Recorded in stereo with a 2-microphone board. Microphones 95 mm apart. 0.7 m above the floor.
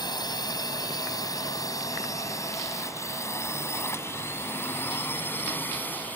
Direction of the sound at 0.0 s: 50° left (ahead or behind).